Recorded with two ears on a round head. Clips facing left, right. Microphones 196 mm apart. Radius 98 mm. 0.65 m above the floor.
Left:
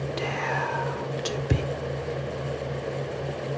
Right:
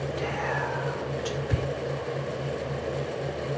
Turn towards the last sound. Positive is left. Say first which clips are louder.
# even
turn(degrees=55)  # may be behind; listen again after turning